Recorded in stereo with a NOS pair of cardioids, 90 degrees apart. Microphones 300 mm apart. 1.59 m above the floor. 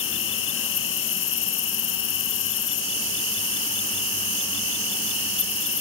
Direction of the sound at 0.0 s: 45° left.